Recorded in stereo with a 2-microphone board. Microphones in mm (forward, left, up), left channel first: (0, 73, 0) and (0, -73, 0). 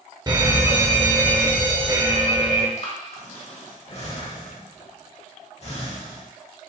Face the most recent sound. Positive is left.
turn(degrees=50)  # may be behind; listen again after turning